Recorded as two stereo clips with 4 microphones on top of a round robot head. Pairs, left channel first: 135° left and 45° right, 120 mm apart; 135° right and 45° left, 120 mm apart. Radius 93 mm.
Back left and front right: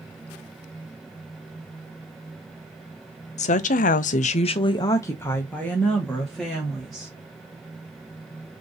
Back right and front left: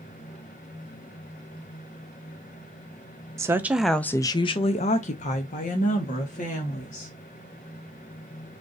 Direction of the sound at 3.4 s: 110° left.